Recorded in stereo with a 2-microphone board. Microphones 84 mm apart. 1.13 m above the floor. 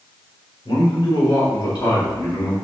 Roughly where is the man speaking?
Left.